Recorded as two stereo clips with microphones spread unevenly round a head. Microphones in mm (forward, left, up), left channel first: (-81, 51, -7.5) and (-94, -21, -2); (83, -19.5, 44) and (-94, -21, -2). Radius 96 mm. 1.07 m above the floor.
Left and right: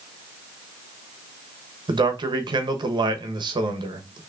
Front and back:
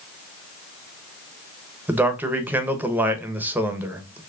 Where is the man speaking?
105° right, 1.1 m.